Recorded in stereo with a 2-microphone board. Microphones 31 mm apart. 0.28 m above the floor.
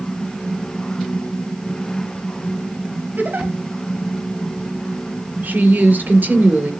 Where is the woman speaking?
75° right (ahead or behind), 4.5 m.